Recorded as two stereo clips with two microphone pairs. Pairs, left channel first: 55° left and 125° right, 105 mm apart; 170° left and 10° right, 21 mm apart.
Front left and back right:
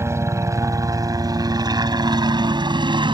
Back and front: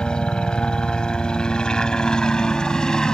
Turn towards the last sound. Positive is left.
turn(degrees=-145)